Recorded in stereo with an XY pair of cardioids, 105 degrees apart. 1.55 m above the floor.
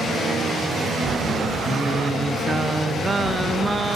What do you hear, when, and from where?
1.6 s singing: 30° right, 0.6 m